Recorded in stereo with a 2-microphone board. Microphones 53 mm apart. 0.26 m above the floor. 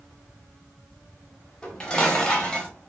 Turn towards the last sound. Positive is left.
turn(degrees=15)  # may be behind; listen again after turning